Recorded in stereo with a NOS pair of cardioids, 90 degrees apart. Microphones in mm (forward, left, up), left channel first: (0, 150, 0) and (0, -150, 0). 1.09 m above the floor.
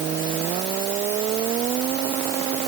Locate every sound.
Only background noise.